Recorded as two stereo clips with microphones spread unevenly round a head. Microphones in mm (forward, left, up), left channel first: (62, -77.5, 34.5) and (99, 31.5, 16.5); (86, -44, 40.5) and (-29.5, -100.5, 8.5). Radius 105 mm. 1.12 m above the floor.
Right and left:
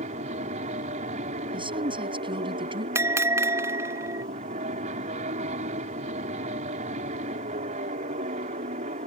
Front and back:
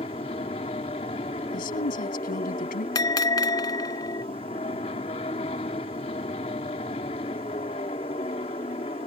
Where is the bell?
90° left.